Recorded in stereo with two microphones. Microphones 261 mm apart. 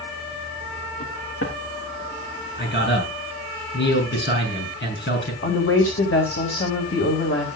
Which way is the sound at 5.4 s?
60° left (ahead or behind).